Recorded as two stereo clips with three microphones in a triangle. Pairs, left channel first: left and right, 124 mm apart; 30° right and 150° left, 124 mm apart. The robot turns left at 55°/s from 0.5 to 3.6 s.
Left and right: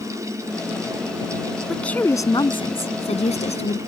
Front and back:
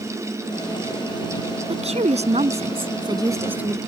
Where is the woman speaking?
Straight behind; by 3.8 s 75° left.